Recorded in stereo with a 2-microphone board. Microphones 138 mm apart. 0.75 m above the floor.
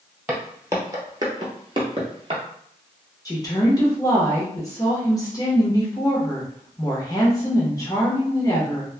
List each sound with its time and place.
0.3 s footsteps: 15° right (ahead or behind), 1.1 m; by 2.4 s 40° right (ahead or behind), 1.0 m
3.2 s a woman speaking: 25° left (ahead or behind), 0.9 m